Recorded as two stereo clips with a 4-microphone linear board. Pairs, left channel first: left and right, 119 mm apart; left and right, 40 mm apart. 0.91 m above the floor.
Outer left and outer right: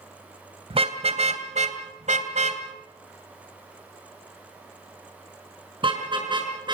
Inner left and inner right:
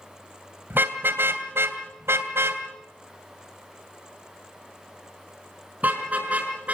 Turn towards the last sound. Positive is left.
turn(degrees=-40)  # may be behind; listen again after turning